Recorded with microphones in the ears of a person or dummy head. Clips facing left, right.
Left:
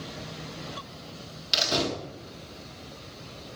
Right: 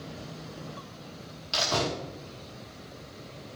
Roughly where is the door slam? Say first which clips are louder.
Left 1 dB; left.